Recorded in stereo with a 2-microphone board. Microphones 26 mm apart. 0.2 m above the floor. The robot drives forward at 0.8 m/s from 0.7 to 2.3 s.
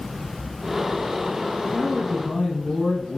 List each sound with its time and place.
1.6 s a man speaking: 30° left (ahead or behind), 1.6 m; by 3.2 s 35° left (ahead or behind), 1.5 m